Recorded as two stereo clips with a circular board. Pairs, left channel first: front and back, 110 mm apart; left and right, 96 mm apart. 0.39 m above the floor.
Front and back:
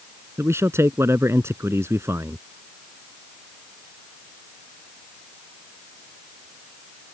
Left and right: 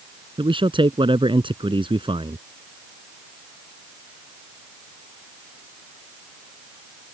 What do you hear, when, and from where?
0.4 s a man speaking: 115° right